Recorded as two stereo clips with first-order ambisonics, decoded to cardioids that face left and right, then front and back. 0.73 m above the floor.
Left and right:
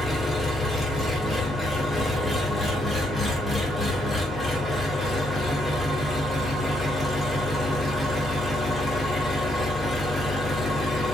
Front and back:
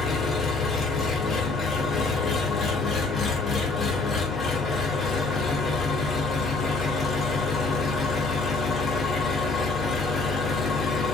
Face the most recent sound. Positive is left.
turn(degrees=15)